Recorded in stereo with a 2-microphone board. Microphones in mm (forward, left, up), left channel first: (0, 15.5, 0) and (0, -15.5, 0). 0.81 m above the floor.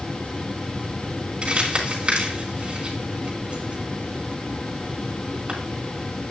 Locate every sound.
1.4 s crumpling: 35° right (ahead or behind), 2.5 m